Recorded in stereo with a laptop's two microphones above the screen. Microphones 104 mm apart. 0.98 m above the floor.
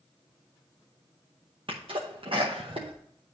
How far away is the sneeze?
About 0.8 m.